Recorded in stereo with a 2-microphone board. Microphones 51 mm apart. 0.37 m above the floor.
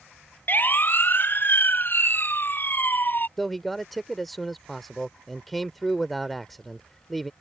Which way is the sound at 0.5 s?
40° left (ahead or behind).